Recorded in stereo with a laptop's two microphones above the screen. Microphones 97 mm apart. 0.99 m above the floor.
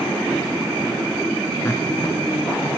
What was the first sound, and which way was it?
Laughter, 25° left (ahead or behind).